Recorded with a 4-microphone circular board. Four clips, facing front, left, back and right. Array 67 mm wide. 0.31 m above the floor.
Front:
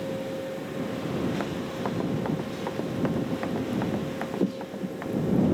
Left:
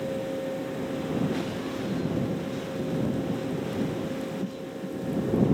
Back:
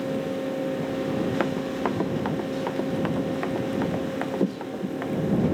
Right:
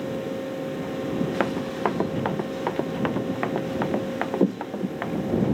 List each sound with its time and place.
1.4 s running footsteps: 115° right; by 5.5 s 95° right